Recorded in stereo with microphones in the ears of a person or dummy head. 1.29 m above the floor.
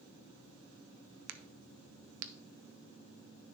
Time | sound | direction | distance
1.3 | a crack | 65° right (ahead or behind) | 0.5 m